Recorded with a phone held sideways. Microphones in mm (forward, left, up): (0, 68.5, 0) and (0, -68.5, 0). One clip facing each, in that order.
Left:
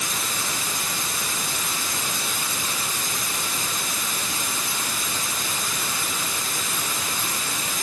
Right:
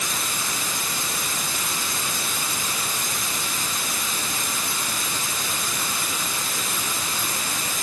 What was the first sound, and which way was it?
Only background noise.